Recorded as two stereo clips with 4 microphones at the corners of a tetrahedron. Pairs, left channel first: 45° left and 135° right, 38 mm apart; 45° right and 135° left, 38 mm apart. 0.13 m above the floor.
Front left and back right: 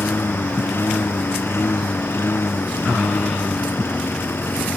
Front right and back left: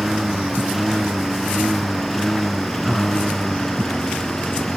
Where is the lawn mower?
50° left; by 4.8 s 30° left.